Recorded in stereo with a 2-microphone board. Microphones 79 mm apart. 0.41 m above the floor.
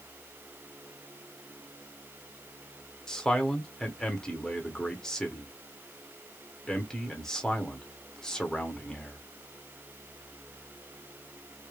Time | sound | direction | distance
3.1 | a man speaking | 5° left (ahead or behind) | 1.0 m